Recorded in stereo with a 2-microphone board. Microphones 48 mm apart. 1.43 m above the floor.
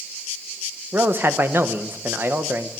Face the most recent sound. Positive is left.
turn(degrees=-50)  # may be behind; listen again after turning